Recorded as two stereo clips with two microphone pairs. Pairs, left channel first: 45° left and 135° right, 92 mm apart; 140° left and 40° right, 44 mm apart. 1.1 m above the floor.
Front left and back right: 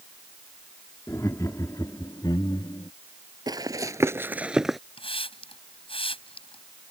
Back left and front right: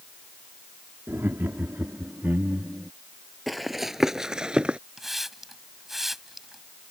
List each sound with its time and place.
1.1 s laughter: 15° right; by 2.9 s 10° left
3.5 s running footsteps: 130° right; by 4.8 s 50° right
5.0 s a hiss: 45° left